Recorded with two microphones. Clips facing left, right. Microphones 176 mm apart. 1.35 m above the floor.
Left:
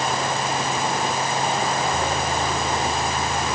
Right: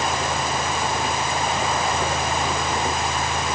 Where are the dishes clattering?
No dishes clattering in this recording.